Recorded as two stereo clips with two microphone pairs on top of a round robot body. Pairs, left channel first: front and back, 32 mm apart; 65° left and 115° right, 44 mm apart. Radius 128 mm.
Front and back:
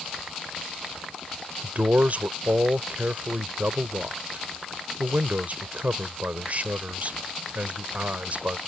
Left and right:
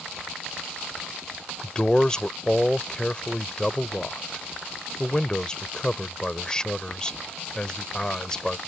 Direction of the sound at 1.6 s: 140° left.